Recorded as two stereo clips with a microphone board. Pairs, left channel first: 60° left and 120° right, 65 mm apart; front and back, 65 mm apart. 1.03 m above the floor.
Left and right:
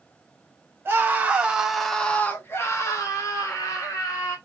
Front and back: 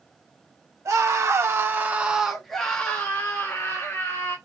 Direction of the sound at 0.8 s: 170° right.